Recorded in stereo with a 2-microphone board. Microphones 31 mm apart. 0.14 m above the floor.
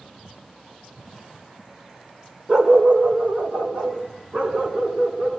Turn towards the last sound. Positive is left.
turn(degrees=-50)  # may be behind; listen again after turning